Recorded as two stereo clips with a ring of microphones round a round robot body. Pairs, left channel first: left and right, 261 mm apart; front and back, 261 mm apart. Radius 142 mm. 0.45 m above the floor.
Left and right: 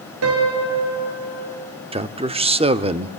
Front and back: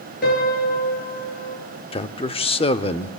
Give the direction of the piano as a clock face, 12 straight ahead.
2 o'clock.